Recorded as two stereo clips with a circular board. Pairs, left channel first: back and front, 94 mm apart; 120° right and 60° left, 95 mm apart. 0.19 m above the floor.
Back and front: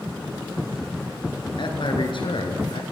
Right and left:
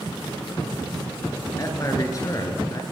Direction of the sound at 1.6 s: 170° right.